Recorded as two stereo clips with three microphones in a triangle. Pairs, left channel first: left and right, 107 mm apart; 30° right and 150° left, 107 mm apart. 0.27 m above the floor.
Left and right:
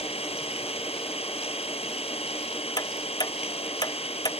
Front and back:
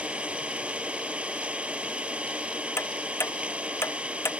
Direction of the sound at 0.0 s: 70° left.